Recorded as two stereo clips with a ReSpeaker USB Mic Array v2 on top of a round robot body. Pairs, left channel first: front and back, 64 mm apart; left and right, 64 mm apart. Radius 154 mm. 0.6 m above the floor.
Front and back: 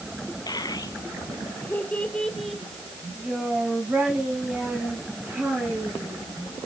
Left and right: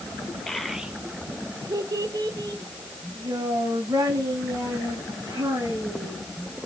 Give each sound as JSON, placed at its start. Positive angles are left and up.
{"t": 0.5, "sound": "a child speaking", "azimuth_deg": 5, "distance_m": 1.6}